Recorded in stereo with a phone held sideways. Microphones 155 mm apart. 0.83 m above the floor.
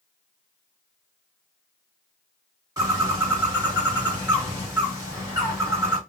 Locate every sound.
2.8 s a bird: 20° right (ahead or behind), 1.4 m